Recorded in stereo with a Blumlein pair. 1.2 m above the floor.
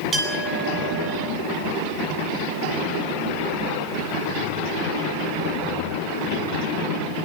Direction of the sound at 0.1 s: 20° right.